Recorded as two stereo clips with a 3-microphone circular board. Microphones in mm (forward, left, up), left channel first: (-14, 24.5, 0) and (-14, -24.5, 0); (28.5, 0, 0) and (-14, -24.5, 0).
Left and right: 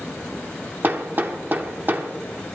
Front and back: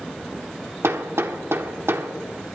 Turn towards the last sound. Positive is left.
turn(degrees=-135)